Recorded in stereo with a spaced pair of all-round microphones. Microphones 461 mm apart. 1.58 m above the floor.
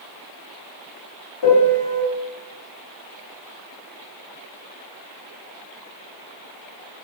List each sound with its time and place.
1.4 s a piano: 65° left (ahead or behind), 0.6 m